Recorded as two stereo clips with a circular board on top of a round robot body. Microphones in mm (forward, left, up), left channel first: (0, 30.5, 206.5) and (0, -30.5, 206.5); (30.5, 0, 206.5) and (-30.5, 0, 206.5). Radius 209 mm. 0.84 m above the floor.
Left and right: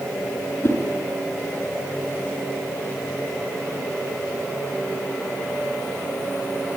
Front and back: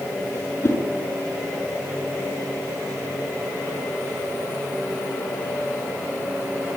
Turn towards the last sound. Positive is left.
turn(degrees=40)